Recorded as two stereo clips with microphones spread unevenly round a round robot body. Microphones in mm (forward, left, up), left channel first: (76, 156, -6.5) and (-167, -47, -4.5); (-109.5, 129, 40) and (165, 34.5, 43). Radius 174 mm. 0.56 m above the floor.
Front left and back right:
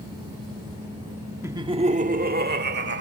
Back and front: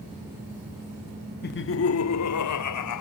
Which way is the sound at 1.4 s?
140° left.